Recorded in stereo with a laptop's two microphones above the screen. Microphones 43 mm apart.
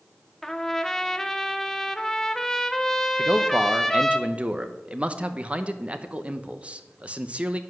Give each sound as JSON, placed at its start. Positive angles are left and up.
{"t": 0.4, "sound": "a trumpet", "side_deg": 10, "distance_m": 0.5}
{"t": 3.2, "sound": "a man speaking", "side_deg": -30, "distance_m": 0.9}